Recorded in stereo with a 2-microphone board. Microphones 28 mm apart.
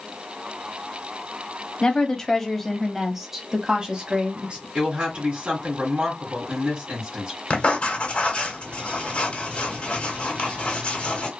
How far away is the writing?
About 1.8 m.